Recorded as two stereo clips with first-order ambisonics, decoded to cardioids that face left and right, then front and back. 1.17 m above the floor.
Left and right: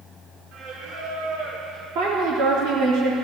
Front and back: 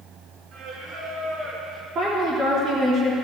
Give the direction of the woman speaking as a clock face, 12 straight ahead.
4 o'clock.